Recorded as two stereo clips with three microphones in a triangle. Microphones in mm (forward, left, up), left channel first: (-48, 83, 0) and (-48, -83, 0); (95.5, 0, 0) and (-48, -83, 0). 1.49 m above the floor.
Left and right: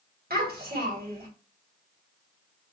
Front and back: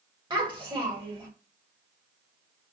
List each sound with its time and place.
0.3 s a child speaking: 90° right, 1.5 m